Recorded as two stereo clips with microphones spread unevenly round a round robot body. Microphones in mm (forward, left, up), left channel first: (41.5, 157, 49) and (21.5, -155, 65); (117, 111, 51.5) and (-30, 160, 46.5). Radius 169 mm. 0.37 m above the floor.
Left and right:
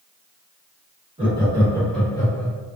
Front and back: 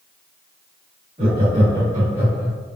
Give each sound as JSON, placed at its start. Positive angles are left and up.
{"t": 1.2, "sound": "laughter", "azimuth_deg": -160, "distance_m": 1.3}